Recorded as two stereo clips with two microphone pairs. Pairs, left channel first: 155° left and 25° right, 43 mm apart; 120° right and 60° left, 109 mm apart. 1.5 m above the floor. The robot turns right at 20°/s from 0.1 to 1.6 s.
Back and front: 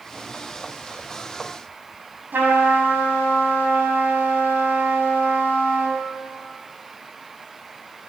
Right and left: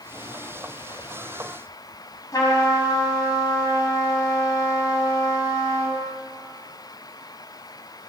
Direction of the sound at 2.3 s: 65° right.